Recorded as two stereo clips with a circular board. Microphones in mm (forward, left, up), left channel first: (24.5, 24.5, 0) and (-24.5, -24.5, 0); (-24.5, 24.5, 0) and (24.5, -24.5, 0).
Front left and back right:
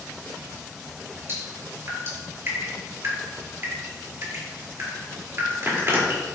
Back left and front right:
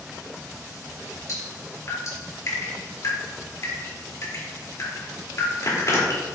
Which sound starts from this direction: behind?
Dripping, at 1.3 s.